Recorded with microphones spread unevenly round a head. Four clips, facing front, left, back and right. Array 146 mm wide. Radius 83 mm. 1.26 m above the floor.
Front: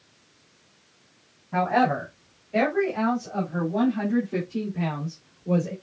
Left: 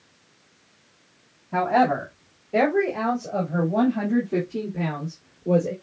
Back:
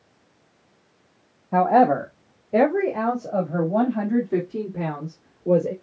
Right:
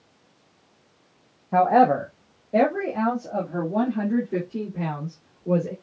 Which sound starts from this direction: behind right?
A woman speaking, at 1.5 s.